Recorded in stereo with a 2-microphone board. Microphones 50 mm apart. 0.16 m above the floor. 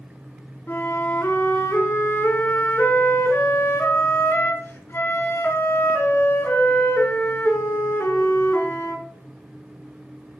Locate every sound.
0.7 s a flute: 55° left (ahead or behind), 1.0 m